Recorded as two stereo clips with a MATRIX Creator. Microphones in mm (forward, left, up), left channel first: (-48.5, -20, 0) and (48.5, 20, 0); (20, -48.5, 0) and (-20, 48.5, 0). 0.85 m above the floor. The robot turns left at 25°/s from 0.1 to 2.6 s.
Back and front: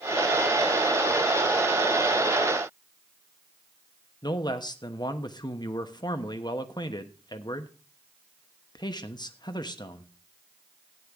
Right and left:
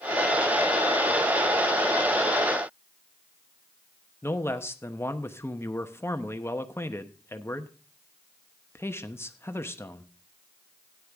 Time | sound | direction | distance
4.2 | a man speaking | 125° right | 1.0 m